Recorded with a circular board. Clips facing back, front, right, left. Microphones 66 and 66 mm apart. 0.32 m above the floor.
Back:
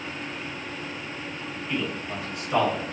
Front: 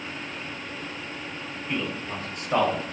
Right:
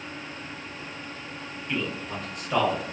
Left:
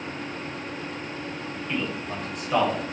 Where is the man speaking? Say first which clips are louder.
Even, even; 15° right, 1.3 m; by 2.9 s 15° left, 1.8 m.